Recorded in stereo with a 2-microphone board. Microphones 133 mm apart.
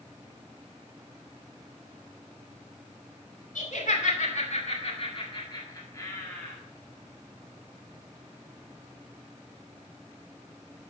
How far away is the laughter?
About 2.5 m.